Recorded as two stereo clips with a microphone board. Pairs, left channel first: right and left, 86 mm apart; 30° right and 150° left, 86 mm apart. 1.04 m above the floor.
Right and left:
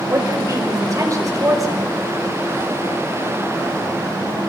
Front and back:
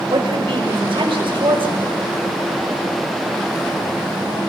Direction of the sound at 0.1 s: 140° left.